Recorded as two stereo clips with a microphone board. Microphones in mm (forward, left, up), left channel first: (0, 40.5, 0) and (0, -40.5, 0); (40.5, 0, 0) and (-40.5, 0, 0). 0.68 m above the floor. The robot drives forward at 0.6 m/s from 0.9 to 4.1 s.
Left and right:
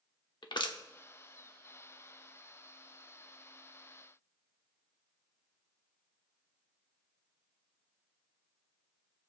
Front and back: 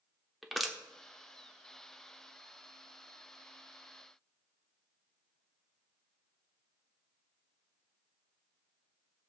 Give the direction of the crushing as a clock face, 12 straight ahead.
9 o'clock.